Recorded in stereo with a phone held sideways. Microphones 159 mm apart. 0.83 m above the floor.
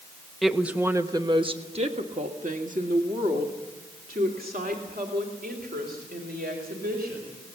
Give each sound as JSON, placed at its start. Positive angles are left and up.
{"t": 0.4, "sound": "a woman speaking", "side_deg": 0, "distance_m": 1.0}